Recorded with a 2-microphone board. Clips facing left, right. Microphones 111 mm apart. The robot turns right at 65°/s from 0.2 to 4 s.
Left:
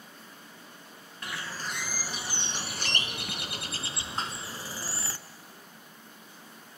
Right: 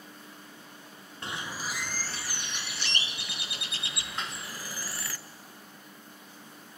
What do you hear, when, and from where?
1.2 s a bird: 40° right, 0.5 m; by 5.2 s 140° left, 0.5 m
4.2 s dishes clattering: 35° left (ahead or behind), 1.0 m